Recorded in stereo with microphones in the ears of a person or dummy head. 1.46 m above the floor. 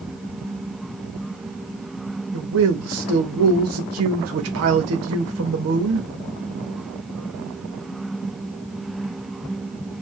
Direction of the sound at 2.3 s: 75° right (ahead or behind).